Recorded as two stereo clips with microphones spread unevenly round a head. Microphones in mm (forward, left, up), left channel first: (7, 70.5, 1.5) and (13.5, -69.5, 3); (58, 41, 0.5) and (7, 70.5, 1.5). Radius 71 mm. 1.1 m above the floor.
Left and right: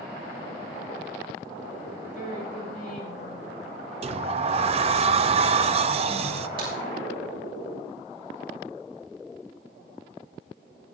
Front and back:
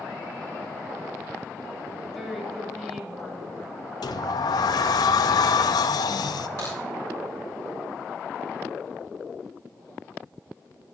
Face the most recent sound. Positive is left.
turn(degrees=-145)